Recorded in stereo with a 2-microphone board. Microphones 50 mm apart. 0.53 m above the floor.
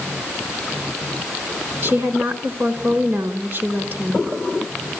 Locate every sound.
1.8 s a woman speaking: 50° right (ahead or behind), 2.5 m